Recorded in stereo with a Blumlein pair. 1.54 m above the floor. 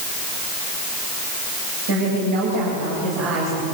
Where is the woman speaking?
50° right, 9.5 m.